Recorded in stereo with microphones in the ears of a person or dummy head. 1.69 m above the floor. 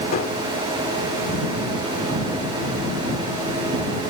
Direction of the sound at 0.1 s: 45° left (ahead or behind).